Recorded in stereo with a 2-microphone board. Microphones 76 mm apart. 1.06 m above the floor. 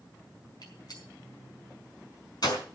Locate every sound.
0.6 s a gunshot: 60° left (ahead or behind), 5 m